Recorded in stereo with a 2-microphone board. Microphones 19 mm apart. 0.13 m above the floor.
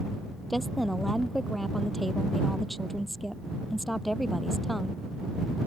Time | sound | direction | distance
0.5 | a woman speaking | 5° left (ahead or behind) | ?